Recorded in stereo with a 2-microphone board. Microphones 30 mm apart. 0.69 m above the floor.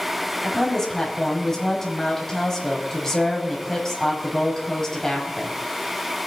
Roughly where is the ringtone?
I don't hear a ringtone.